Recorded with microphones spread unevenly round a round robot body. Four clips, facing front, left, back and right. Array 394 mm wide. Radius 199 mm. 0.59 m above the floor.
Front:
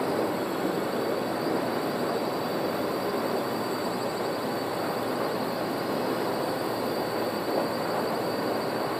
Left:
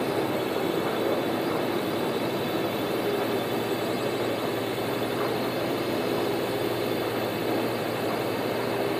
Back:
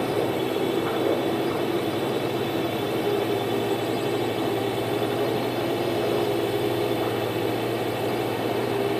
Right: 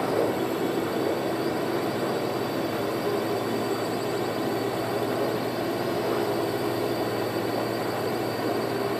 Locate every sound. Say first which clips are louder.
0.0 s a drone: right 2 dB, back 3 dB; 175° right